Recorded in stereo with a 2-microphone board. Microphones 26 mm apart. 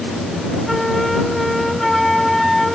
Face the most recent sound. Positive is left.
turn(degrees=0)  # may be behind; listen again after turning